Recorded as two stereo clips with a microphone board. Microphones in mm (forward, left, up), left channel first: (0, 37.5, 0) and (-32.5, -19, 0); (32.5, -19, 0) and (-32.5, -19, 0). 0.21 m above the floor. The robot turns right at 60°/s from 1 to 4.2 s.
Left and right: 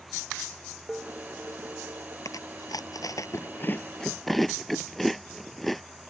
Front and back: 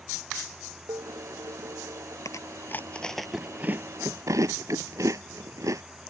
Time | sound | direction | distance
0.9 | dishes clattering | 150° left | ?
2.2 | chewing | 30° left | ?